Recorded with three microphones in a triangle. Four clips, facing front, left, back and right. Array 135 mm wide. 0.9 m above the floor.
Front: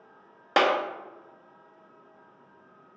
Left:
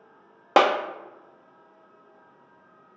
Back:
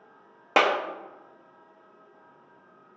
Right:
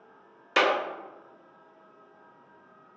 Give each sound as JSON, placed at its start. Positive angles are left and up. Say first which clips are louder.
{"t": 0.6, "sound": "a clap", "louder": "left 5 dB, even", "azimuth_deg": 100, "distance_m": 0.8}